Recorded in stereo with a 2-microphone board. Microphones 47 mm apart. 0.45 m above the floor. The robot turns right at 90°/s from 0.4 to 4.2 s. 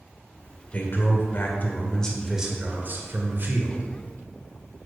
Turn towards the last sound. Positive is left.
turn(degrees=0)